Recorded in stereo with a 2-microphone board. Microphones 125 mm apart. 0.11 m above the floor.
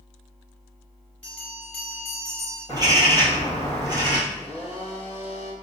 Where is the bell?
10° left (ahead or behind), 1.6 m.